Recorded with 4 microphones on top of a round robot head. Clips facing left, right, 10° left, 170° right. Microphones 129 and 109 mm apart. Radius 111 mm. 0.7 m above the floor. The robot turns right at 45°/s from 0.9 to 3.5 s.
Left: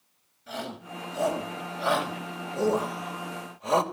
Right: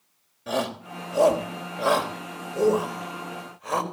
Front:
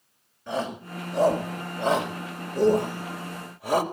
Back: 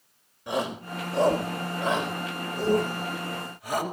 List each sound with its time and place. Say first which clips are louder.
0.5 s a shout: right 9 dB, back 1 dB; 90° right, 3.5 m; by 3.8 s 25° left, 3.5 m